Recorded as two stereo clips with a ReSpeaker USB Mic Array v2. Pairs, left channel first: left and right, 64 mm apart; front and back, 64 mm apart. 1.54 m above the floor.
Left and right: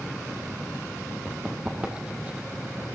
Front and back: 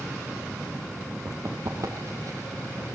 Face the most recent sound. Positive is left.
turn(degrees=-160)